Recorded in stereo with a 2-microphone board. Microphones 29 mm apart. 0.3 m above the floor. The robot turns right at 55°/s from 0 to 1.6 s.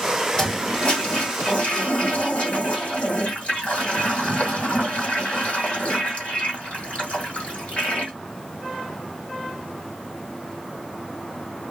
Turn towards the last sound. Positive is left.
turn(degrees=95)